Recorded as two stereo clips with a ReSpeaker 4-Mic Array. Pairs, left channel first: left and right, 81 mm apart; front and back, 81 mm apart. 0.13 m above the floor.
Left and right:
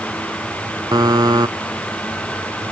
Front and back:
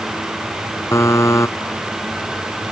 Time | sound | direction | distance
0.9 | a buzzer | 55° right | ?